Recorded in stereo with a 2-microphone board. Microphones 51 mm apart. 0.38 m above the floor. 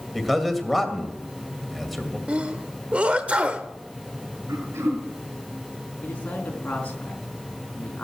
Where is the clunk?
No clunk in this recording.